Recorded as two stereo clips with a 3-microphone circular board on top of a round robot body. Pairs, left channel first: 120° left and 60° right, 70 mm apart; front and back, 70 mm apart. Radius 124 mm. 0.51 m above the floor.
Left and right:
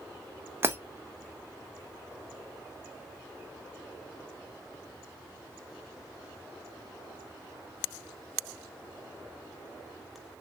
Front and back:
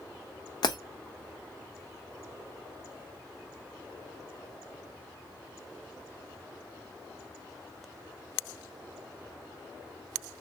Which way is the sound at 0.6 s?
Straight ahead.